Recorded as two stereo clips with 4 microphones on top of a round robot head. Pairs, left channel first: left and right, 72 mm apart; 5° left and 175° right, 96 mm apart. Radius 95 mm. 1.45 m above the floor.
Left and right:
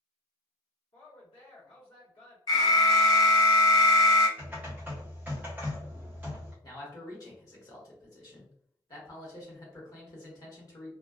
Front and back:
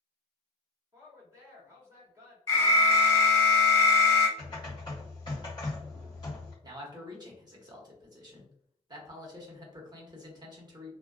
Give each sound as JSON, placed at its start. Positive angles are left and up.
{"t": 0.9, "sound": "a woman speaking", "azimuth_deg": 125, "distance_m": 1.2}
{"t": 2.5, "sound": "an alarm", "azimuth_deg": 65, "distance_m": 1.0}
{"t": 4.4, "sound": "typing on a keyboard", "azimuth_deg": -35, "distance_m": 0.5}
{"t": 6.6, "sound": "a man speaking", "azimuth_deg": 135, "distance_m": 0.9}